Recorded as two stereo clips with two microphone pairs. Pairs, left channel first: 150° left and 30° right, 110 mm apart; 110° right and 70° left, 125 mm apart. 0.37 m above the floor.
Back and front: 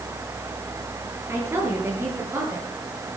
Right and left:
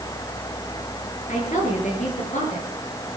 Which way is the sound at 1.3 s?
95° right.